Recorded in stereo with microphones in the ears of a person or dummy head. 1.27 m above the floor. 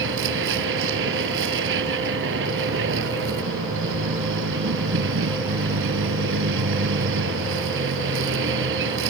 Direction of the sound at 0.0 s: 70° right (ahead or behind).